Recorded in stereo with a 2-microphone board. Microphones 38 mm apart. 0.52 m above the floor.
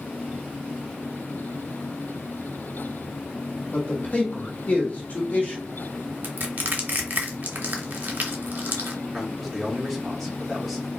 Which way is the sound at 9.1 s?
Centre (ahead or behind).